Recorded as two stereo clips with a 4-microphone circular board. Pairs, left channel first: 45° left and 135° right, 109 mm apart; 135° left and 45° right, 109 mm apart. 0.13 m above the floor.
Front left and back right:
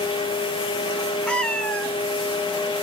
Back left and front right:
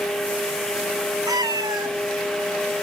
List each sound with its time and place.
1.3 s a cat meowing: 30° right, 0.6 m